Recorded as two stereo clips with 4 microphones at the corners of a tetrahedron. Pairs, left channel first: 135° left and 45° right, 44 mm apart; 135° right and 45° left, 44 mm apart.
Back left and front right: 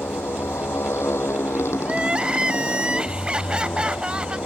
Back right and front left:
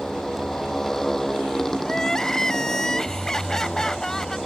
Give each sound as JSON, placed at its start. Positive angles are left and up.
{"t": 0.0, "sound": "a motorcycle", "azimuth_deg": 145}
{"t": 1.8, "sound": "crying", "azimuth_deg": -80}